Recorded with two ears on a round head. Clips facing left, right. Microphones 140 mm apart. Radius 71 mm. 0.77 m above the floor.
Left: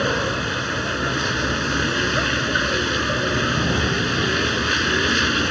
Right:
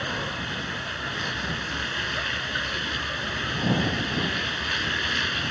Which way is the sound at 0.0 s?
65° left (ahead or behind).